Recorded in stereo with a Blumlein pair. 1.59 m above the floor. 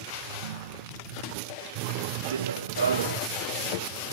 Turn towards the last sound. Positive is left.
turn(degrees=-70)